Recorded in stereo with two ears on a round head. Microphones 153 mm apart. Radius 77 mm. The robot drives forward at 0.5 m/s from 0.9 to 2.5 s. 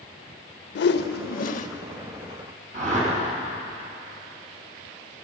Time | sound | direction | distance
0.8 | a whoosh | 70° left (ahead or behind) | 0.6 m
2.7 | a whoosh | 45° right (ahead or behind) | 4.5 m